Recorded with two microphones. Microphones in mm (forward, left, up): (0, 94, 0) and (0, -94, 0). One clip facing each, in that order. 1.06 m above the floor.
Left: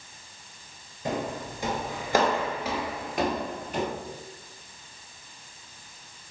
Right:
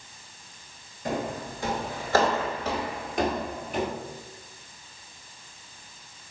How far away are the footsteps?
About 1.3 m.